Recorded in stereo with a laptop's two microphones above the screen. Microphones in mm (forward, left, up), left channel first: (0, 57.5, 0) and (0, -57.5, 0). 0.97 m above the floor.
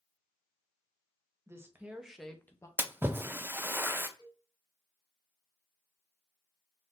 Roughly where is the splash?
Centre.